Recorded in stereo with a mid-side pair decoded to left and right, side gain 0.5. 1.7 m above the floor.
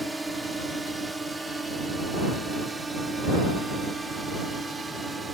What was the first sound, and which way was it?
A drone, 10° right.